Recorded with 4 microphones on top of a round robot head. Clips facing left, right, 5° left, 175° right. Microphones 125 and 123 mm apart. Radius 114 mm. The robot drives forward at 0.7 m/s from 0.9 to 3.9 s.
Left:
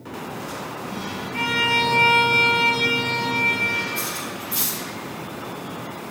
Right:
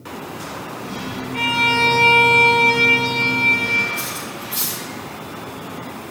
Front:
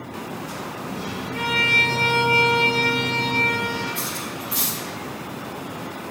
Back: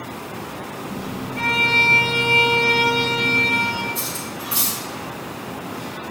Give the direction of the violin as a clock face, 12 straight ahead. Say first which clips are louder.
Right 3 dB, back 3 dB; 1 o'clock.